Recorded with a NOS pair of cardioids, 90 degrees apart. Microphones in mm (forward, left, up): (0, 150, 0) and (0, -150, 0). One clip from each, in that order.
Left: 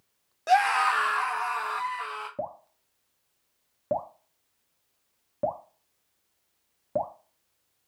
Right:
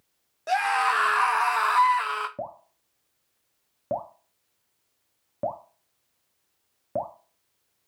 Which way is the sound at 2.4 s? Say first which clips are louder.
Left 1 dB; straight ahead.